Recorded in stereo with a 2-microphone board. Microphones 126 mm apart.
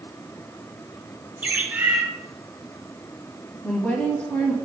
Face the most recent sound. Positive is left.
turn(degrees=10)  # may be behind; listen again after turning